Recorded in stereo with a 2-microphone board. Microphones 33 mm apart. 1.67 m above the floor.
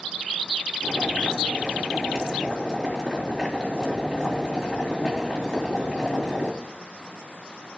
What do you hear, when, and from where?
0.8 s boiling: centre (ahead or behind), 3.5 m